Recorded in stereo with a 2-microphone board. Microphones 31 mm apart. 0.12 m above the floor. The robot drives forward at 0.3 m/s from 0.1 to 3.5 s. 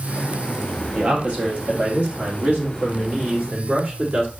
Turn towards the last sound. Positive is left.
turn(degrees=-30)  # may be behind; listen again after turning